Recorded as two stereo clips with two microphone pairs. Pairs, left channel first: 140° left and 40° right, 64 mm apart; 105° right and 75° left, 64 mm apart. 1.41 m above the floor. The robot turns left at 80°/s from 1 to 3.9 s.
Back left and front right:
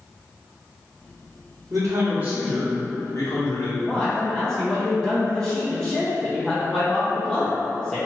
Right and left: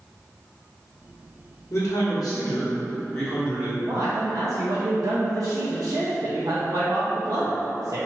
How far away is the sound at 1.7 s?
About 1.3 m.